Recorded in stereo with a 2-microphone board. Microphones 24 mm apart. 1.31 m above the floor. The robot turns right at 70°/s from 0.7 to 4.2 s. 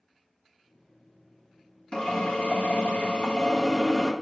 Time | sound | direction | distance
1.9 | a drill | 35° left | 1.6 m